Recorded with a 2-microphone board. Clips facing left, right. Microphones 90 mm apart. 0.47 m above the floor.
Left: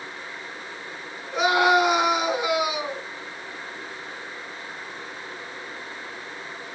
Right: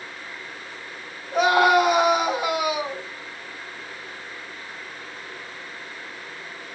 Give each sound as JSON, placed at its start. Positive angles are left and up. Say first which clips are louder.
{"t": 1.3, "sound": "a scream", "louder": "right 2 dB", "side_deg": -45, "distance_m": 4.5}